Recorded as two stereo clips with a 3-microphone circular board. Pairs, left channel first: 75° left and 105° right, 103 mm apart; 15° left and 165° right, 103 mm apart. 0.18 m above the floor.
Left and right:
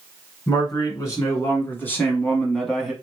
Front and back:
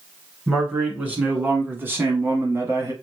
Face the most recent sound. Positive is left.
turn(degrees=170)